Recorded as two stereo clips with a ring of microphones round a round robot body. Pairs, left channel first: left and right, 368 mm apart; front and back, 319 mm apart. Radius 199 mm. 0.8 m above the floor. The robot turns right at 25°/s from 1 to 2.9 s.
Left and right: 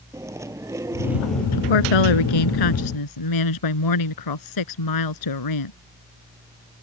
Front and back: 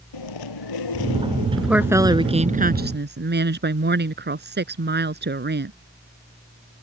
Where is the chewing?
10° right; by 1.5 s 5° left.